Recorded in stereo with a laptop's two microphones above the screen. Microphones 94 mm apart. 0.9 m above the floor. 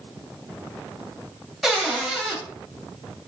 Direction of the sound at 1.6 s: 5° right (ahead or behind).